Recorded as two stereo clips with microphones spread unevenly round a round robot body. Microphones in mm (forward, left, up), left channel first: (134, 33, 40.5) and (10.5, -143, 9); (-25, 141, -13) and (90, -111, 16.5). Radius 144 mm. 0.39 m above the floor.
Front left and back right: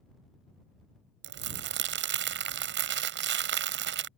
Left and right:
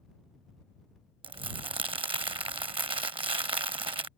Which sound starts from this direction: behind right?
Crumpling, at 1.2 s.